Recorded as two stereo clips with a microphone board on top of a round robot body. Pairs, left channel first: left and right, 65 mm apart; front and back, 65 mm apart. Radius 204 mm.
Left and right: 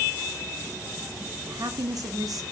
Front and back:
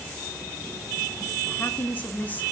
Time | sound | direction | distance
1.5 | a woman speaking | 65° right | 2.0 m